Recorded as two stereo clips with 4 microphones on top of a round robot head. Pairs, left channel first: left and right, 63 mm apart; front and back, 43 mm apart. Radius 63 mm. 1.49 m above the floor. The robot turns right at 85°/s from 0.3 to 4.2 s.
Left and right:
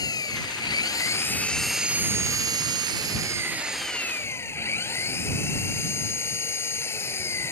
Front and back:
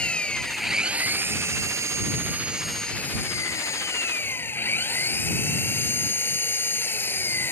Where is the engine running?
65° left; by 7.5 s 35° left.